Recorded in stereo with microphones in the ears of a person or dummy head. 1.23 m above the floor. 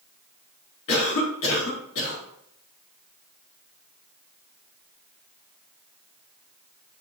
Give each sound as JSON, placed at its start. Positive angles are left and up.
{"t": 0.9, "sound": "a cough", "side_deg": 70, "distance_m": 3.5}